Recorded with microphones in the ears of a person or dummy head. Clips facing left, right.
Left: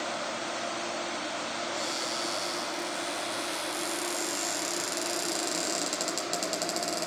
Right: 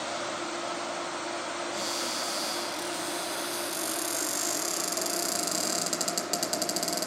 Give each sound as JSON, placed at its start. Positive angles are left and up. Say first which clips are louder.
{"t": 1.7, "sound": "a cupboard door", "louder": "even", "side_deg": -5, "distance_m": 0.6}